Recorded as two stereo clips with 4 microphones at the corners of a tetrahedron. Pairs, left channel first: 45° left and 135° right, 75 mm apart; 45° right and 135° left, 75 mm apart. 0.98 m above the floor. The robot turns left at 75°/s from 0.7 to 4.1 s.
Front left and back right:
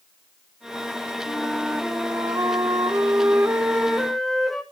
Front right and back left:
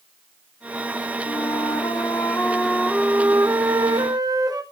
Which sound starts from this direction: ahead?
A flute, at 1.2 s.